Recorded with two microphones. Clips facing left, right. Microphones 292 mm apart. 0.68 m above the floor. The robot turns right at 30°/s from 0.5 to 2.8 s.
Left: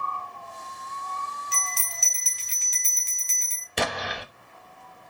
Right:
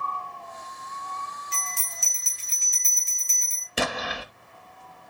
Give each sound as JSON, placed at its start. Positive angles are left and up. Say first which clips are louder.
{"t": 1.5, "sound": "a bell", "louder": "left 2 dB", "azimuth_deg": 75, "distance_m": 1.6}
{"t": 3.8, "sound": "an explosion", "louder": "even", "side_deg": -5, "distance_m": 0.8}